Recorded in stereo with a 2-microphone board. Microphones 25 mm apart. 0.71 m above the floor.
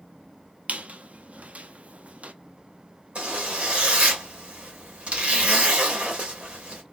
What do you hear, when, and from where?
0.7 s a squeak: 60° right (ahead or behind), 0.5 m
3.1 s a zipper: 50° right (ahead or behind), 1.7 m